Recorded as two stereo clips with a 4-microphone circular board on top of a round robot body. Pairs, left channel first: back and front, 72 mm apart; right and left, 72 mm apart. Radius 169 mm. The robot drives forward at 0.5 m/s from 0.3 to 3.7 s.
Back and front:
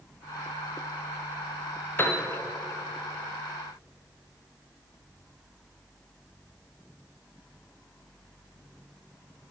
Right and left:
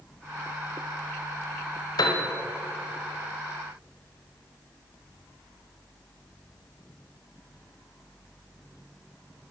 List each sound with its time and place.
2.0 s a piano: 120° right, 1.5 m; by 2.2 s 125° right, 1.5 m